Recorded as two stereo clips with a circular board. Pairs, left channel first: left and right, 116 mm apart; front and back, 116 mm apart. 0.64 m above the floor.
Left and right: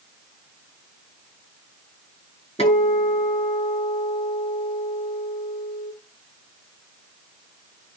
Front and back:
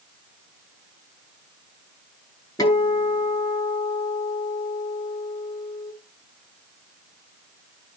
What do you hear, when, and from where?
2.6 s a guitar: 60° left, 7 m